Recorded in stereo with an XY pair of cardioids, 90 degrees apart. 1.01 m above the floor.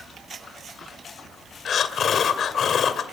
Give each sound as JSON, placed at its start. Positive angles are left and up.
{"t": 1.6, "sound": "breathing", "azimuth_deg": 60, "distance_m": 2.0}